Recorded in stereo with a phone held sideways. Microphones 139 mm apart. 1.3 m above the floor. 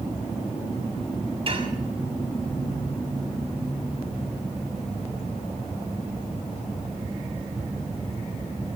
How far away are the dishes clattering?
About 6 m.